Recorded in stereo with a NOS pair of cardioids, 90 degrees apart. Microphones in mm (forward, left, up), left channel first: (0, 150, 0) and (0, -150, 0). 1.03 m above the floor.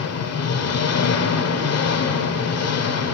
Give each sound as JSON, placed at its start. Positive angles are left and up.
{"t": 0.0, "sound": "an engine running", "azimuth_deg": 55, "distance_m": 1.7}